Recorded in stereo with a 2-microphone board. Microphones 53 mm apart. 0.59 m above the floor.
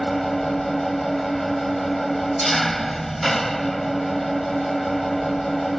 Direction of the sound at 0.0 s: 5° left (ahead or behind).